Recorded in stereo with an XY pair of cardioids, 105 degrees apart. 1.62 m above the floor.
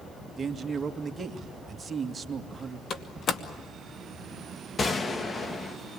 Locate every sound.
0.4 s a man speaking: 20° right, 2 m
2.9 s a door slam: 60° left, 2.5 m
4.8 s a gunshot: 40° left, 1.8 m